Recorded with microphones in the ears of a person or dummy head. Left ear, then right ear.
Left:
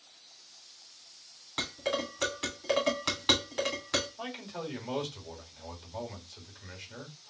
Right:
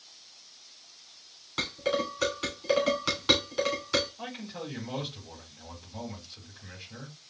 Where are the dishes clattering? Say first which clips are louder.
Right 3 dB; 15° left (ahead or behind), 2.5 m.